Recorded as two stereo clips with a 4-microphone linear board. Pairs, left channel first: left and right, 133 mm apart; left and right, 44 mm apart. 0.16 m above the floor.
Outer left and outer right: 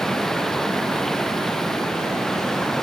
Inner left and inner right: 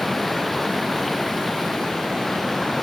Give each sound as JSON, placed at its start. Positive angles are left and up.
{"t": 0.0, "sound": "running water", "side_deg": 5}